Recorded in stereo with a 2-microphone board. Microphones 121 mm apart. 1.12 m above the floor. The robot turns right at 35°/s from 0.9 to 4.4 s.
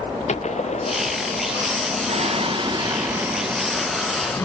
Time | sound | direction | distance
0.3 | a gunshot | 70° left (ahead or behind) | ?
2.1 | singing | 60° right | ?